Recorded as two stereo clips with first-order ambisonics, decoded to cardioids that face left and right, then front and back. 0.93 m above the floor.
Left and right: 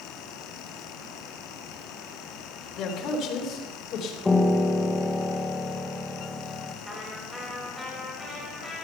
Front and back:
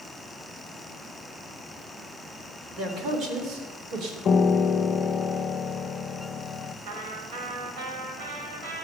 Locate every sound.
2.8 s a man speaking: 125° left, 3 m; by 4.2 s 135° left, 3.5 m
4.2 s a piano: 20° left, 0.7 m
6.8 s a trumpet: 175° right, 6 m